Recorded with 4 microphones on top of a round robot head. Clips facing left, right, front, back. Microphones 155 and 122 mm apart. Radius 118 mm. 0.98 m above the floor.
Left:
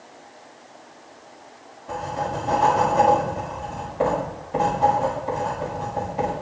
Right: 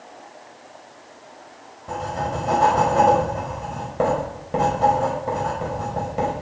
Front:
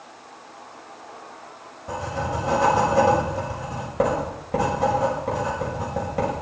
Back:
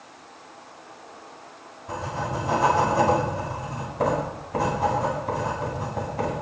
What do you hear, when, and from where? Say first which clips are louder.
1.9 s writing: right 1 dB, front 2 dB; 40° right, 6 m